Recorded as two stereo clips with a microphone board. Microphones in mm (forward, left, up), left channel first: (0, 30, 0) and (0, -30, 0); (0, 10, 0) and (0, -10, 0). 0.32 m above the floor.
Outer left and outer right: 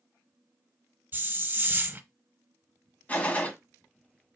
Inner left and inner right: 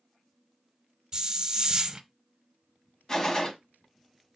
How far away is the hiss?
About 0.5 m.